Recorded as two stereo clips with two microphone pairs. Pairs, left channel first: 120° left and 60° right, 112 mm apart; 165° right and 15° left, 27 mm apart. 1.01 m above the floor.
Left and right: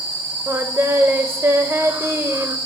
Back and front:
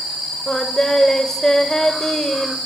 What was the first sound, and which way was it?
Singing, 105° right.